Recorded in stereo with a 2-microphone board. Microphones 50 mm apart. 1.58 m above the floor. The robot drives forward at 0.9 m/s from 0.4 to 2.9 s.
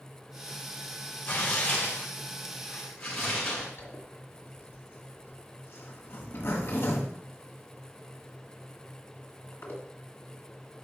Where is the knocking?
No knocking in this recording.